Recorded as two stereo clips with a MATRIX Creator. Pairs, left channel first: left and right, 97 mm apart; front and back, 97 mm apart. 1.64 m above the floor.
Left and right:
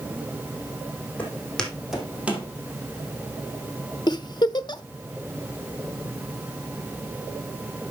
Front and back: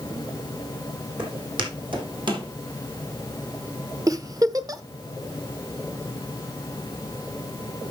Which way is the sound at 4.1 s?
130° left.